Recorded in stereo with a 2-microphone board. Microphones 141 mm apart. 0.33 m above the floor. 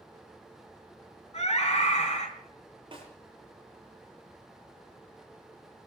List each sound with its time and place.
1.3 s a scream: 45° left (ahead or behind), 3.5 m
2.9 s a snare drum: 35° right (ahead or behind), 7.5 m